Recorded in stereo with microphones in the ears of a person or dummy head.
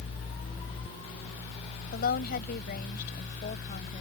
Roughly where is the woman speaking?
Left.